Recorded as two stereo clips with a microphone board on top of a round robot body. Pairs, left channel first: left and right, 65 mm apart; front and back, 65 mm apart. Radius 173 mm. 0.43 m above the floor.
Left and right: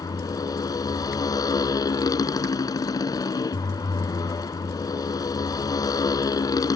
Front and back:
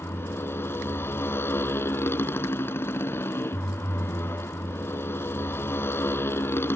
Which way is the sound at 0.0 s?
60° left.